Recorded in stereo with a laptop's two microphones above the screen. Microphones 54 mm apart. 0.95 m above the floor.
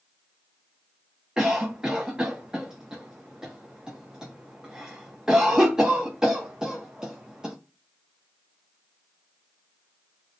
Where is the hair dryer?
No hair dryer in this recording.